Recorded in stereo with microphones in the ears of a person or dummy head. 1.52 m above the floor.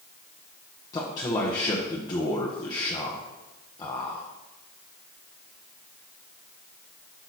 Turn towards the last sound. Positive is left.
turn(degrees=20)  # may be behind; listen again after turning